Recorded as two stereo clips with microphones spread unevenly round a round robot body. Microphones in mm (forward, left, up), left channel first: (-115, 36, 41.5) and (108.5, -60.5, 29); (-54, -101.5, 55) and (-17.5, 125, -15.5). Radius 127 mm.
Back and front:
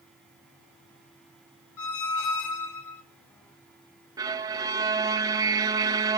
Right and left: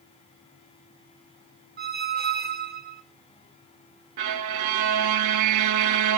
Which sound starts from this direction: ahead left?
A violin, at 4.2 s.